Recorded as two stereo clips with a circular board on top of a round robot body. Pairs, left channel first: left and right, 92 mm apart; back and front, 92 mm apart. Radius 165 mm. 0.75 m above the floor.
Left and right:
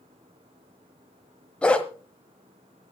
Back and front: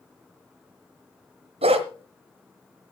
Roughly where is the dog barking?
Ahead.